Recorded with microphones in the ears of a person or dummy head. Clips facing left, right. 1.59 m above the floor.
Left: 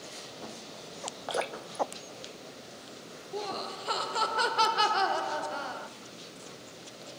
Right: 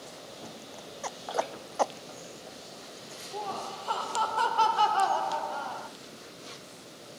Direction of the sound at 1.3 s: 40° left (ahead or behind).